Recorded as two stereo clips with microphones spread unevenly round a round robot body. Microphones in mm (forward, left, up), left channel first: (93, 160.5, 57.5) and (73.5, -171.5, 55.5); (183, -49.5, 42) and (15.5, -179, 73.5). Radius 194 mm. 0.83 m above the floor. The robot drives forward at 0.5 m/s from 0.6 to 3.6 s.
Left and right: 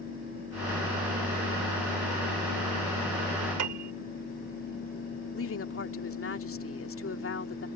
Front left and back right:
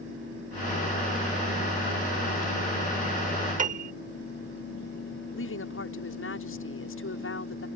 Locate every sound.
3.6 s a piano: 85° right
5.3 s a woman speaking: 35° left